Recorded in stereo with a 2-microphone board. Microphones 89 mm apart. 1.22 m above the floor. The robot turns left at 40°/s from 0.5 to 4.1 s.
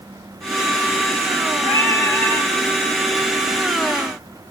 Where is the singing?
55° left, 2.5 m; by 2.5 s 20° left, 2.5 m.